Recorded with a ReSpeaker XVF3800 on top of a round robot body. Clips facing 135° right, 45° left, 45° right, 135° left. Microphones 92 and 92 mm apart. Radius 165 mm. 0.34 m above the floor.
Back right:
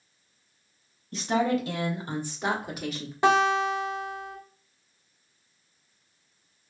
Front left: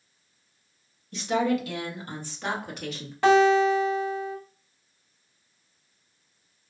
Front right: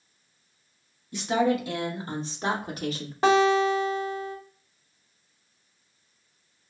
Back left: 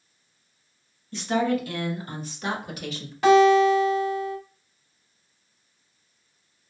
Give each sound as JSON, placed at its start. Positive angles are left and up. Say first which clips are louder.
{"t": 1.1, "sound": "a woman speaking", "louder": "even, even", "azimuth_deg": -115, "distance_m": 1.7}
{"t": 3.2, "sound": "a guitar", "louder": "front left 4 dB, back left 5 dB", "azimuth_deg": -75, "distance_m": 1.6}